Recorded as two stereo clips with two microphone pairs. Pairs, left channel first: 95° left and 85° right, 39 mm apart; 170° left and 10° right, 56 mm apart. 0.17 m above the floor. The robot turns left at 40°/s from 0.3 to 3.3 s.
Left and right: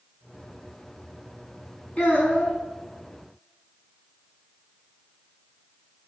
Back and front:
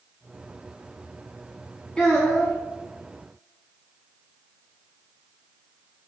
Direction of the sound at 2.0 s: 95° left.